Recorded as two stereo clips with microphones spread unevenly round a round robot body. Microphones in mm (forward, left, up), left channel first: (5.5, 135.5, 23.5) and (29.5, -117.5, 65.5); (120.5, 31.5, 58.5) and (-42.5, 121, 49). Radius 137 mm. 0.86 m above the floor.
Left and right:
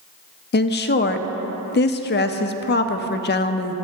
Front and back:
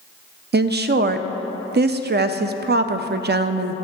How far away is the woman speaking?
About 0.5 m.